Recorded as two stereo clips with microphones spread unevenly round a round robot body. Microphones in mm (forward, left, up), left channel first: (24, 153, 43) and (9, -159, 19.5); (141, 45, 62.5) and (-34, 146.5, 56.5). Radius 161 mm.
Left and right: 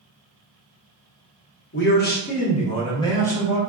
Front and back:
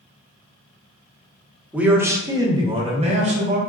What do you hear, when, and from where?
1.7 s a man speaking: 75° left, 1.0 m; by 3.6 s 175° left, 1.2 m